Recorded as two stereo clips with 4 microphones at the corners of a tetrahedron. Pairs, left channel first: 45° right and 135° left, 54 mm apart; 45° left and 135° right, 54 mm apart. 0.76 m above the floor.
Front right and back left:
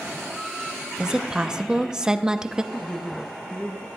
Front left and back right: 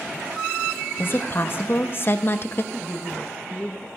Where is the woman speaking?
60° left, 0.6 m.